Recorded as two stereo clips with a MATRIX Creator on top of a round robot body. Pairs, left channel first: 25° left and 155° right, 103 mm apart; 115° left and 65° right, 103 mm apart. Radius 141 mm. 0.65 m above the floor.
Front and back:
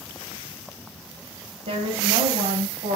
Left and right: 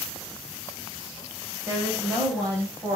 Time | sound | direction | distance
1.7 | a woman speaking | 140° right | 4 m